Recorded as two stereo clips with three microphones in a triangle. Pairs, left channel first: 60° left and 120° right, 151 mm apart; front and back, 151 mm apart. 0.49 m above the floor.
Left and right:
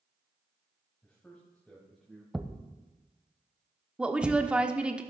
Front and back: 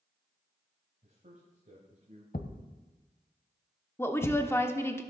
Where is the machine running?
I don't hear a machine running.